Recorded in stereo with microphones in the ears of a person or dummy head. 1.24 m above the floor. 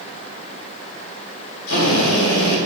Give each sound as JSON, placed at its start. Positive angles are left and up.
{"t": 1.7, "sound": "a drill", "side_deg": 80, "distance_m": 3.0}